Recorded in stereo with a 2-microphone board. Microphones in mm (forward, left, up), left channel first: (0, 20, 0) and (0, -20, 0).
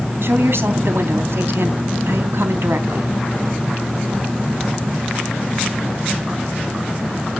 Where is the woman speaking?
75° right (ahead or behind), 3 m.